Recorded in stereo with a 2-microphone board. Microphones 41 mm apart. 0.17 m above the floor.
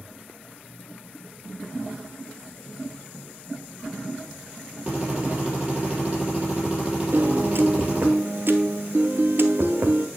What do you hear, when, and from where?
4.9 s a drill: 20° right (ahead or behind), 5 m
7.1 s a piano: 60° right (ahead or behind), 0.9 m